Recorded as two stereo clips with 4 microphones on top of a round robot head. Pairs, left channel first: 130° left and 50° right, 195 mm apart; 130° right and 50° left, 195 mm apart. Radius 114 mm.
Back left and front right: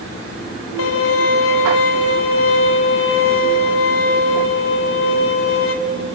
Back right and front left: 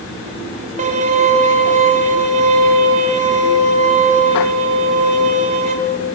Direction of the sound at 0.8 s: 105° left.